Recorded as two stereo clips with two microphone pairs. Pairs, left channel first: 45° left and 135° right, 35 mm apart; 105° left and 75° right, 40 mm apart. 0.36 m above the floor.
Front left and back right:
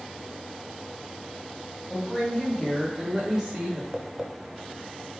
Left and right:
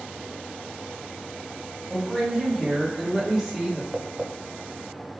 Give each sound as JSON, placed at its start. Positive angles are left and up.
{"t": 1.9, "sound": "a woman speaking", "azimuth_deg": -20, "distance_m": 1.6}
{"t": 3.9, "sound": "tapping", "azimuth_deg": -110, "distance_m": 0.6}